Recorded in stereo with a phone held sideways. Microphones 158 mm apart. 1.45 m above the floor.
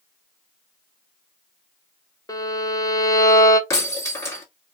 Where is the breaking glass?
20° left (ahead or behind), 1.4 m.